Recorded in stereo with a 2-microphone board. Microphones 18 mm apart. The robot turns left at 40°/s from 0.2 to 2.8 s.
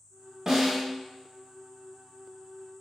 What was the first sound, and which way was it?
A snare drum, 30° right (ahead or behind).